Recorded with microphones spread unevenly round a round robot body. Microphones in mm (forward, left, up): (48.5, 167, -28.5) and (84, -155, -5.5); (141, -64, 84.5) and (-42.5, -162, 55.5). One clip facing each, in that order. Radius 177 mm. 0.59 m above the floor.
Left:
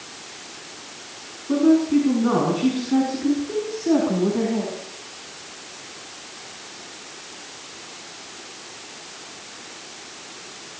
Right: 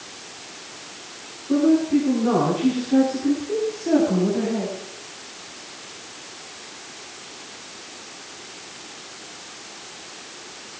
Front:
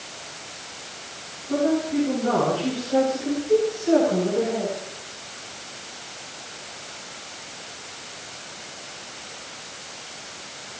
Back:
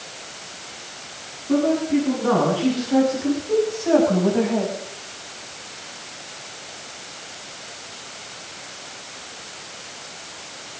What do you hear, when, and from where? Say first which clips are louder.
1.5 s a woman speaking: left 1 dB, back 3 dB; 155° left, 7.5 m; by 4.8 s straight behind, 5 m